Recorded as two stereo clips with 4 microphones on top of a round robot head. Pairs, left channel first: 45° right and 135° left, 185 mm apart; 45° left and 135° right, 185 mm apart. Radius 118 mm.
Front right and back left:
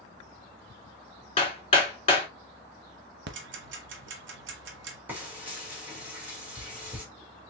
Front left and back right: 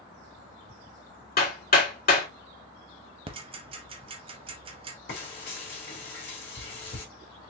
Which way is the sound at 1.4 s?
10° left.